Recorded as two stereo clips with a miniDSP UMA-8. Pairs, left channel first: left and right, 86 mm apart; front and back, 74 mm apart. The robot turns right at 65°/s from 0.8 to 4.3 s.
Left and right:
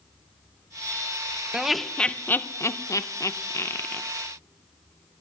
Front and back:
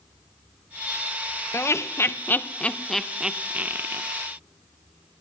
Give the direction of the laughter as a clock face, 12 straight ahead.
12 o'clock.